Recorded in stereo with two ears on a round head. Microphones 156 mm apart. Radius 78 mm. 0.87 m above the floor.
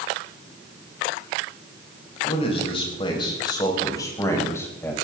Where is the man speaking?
35° left (ahead or behind), 6 m; by 4.9 s 15° left (ahead or behind), 5.5 m.